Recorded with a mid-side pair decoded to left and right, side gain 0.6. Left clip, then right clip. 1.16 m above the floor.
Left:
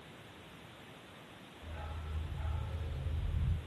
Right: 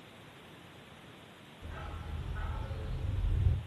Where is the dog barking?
50° right, 6.5 m; by 3.6 s 75° right, 5.5 m.